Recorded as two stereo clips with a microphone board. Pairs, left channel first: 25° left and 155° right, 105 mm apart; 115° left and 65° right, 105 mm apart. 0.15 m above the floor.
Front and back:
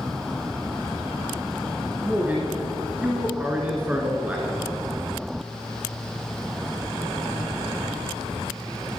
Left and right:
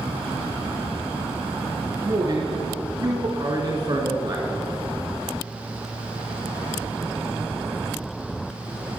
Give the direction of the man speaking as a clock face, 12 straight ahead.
3 o'clock.